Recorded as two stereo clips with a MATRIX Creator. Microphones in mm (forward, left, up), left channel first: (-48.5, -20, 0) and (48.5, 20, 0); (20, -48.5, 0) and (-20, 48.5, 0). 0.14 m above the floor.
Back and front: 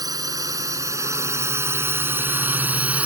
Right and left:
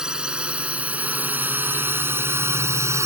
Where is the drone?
35° left; by 3.1 s 85° left.